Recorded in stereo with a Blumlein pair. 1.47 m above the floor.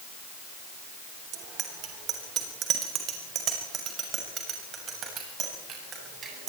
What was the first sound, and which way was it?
A bicycle bell, 35° right.